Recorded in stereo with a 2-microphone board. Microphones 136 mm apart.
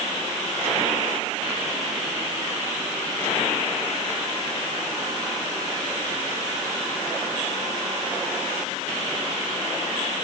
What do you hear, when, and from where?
Only background noise.